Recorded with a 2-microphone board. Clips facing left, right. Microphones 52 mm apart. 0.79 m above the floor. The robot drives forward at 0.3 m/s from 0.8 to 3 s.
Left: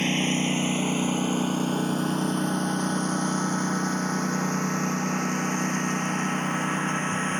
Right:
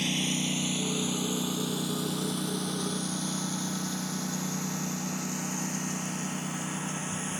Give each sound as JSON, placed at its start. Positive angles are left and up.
{"t": 0.0, "sound": "a lawn mower", "side_deg": 35}